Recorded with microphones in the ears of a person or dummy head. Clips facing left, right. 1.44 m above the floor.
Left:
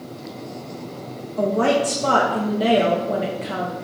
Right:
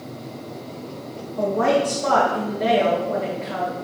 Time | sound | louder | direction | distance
1.4 | a woman speaking | left 1 dB | 50° left (ahead or behind) | 1.8 m